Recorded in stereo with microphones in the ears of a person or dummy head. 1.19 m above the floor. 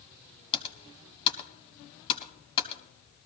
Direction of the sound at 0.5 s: 25° left (ahead or behind).